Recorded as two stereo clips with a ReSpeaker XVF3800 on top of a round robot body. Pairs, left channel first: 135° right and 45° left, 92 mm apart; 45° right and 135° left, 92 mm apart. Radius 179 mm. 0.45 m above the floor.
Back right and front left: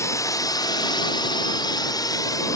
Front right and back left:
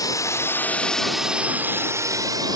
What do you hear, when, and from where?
0.0 s a drone: 85° right; by 2.6 s 175° left